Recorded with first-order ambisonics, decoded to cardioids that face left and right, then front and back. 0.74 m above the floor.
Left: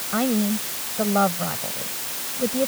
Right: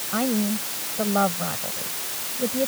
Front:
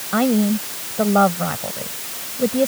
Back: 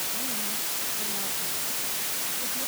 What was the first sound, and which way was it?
A woman speaking, 5° left.